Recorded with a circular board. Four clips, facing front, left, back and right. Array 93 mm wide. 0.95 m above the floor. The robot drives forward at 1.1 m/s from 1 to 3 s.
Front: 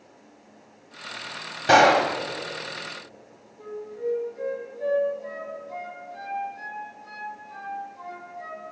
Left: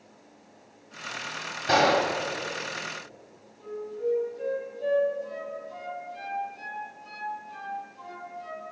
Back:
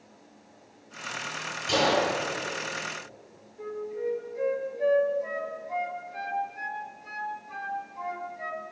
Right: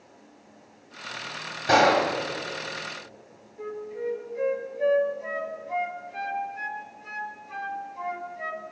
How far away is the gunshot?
About 2 m.